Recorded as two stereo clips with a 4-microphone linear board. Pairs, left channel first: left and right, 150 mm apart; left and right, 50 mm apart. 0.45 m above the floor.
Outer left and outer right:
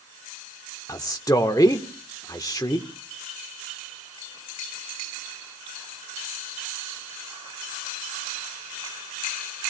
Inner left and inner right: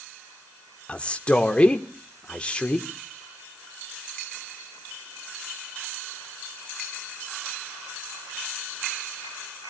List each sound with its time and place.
0.9 s a man speaking: 25° left (ahead or behind), 1.1 m